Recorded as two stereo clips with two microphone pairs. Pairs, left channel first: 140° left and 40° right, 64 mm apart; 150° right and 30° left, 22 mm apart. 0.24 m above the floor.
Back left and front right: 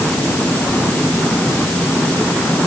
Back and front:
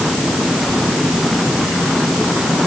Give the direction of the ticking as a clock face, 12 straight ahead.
I don't hear ticking.